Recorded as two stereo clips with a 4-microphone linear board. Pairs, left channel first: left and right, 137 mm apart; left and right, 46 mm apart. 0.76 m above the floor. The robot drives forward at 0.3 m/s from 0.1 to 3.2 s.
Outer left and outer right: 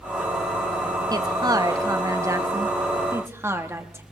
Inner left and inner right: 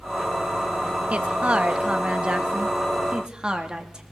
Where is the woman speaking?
30° right (ahead or behind), 0.6 m; by 4.0 s 20° right (ahead or behind), 1.0 m.